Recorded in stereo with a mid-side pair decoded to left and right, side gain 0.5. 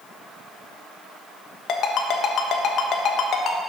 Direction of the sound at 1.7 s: 60° left.